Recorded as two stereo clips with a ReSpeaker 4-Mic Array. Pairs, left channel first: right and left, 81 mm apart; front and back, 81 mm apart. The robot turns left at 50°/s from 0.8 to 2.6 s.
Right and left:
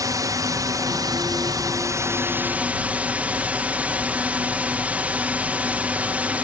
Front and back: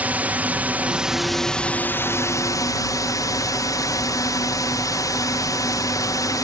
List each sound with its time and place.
0.0 s a drone: 115° left; by 6.5 s 25° left